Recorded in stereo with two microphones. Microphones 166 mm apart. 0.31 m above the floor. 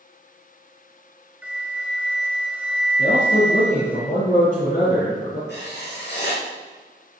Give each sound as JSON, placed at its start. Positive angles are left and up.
{"t": 1.4, "sound": "a flute", "side_deg": -5, "distance_m": 1.3}
{"t": 3.0, "sound": "a man speaking", "side_deg": 65, "distance_m": 4.5}
{"t": 5.5, "sound": "writing", "side_deg": 85, "distance_m": 5.0}